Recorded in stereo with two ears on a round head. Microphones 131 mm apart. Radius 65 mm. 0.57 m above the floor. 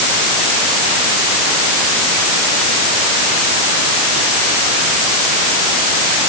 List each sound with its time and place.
Only background noise.